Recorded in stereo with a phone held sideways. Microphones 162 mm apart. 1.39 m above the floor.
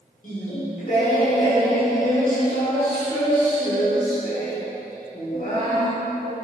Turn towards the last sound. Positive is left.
turn(degrees=65)  # may be behind; listen again after turning